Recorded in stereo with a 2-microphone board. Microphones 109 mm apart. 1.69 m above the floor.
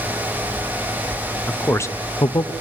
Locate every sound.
1.5 s a man speaking: 15° left (ahead or behind), 0.9 m; by 2.5 s 50° left (ahead or behind), 0.7 m